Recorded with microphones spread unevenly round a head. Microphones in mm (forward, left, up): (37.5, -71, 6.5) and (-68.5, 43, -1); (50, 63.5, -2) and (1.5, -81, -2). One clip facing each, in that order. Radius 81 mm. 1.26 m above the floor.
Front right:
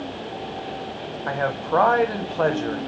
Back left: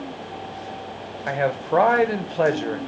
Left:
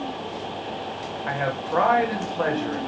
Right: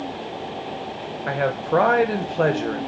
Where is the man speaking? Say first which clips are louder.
Back left 2 dB, right 5 dB; 155° right, 0.7 m.